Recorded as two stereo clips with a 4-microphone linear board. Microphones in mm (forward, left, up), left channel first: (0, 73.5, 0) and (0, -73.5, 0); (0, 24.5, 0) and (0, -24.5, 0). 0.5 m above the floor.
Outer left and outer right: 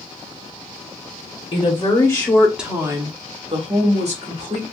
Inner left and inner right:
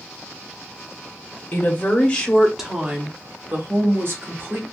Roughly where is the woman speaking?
Left.